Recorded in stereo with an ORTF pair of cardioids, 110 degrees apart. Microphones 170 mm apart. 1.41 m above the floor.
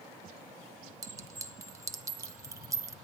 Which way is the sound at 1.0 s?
20° right.